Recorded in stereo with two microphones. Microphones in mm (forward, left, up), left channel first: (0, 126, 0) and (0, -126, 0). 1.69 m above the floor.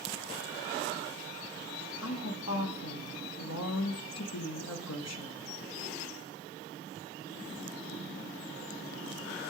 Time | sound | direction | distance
2.0 | a woman speaking | 75° left (ahead or behind) | 0.8 m